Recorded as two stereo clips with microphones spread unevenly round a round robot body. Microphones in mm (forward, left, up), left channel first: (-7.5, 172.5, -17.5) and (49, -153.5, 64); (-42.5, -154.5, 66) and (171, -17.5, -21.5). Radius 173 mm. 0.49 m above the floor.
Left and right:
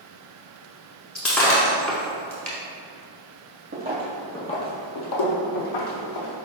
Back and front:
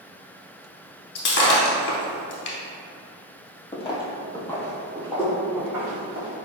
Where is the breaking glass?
165° right, 0.6 m.